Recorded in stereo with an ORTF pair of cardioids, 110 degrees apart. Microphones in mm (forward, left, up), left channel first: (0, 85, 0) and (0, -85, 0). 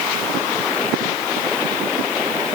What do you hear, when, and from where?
Only background noise.